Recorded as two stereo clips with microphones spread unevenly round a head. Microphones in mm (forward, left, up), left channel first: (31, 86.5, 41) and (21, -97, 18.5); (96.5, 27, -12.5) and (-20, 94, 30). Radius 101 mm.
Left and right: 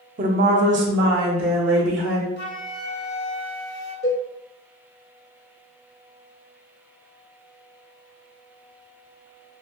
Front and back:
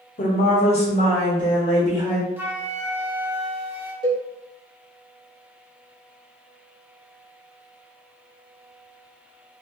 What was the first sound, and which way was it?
A woman speaking, 50° right.